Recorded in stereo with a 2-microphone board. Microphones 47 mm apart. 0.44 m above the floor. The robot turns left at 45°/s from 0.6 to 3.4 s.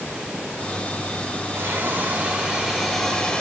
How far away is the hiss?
About 4.5 m.